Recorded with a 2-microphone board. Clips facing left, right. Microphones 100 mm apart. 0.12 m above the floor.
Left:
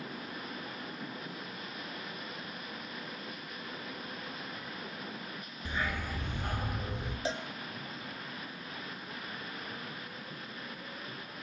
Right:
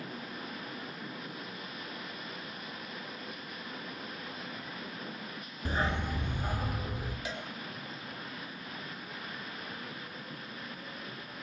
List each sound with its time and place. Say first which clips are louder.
5.7 s a dog barking: right 4 dB; 40° right (ahead or behind), 0.6 m; by 7.2 s 5° right (ahead or behind), 2 m
7.2 s a cowbell: left 8 dB; 30° left (ahead or behind), 1.3 m